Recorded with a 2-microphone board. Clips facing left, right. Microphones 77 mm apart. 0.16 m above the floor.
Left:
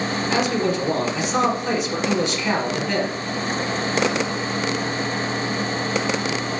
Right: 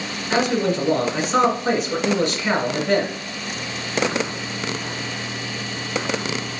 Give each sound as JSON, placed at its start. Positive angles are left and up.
{"t": 0.3, "sound": "a man speaking", "side_deg": -45, "distance_m": 1.7}